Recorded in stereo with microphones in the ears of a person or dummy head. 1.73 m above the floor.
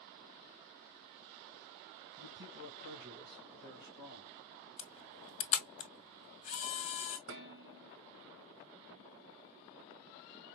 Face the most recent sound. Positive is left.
turn(degrees=-60)  # may be behind; listen again after turning